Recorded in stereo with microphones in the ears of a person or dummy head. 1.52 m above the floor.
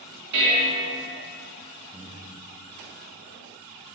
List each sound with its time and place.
0.3 s dishes clattering: 65° right (ahead or behind), 1.9 m
1.9 s breathing: 10° right (ahead or behind), 0.6 m